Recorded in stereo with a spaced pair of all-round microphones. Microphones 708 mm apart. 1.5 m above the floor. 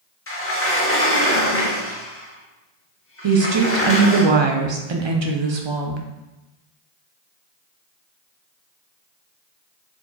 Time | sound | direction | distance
0.3 | a sliding door | 20° left (ahead or behind) | 0.6 m
3.2 | a woman speaking | 45° right (ahead or behind) | 0.5 m